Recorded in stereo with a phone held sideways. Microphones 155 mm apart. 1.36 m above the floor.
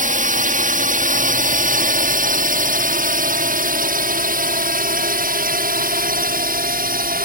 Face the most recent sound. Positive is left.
turn(degrees=-70)  # may be behind; listen again after turning